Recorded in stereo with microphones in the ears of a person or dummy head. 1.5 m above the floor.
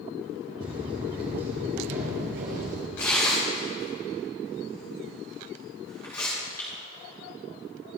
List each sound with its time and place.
0.6 s footsteps: 15° right (ahead or behind), 1.6 m; by 2.9 s 45° right (ahead or behind), 2.5 m
3.0 s tearing paper: 15° left (ahead or behind), 3 m